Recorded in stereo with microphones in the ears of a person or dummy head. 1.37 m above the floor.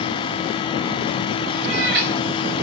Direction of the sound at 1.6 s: 60° right (ahead or behind).